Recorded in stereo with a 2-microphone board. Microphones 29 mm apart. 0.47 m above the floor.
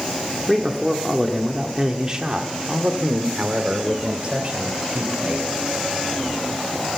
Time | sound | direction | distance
0.5 | a man speaking | centre (ahead or behind) | 1.4 m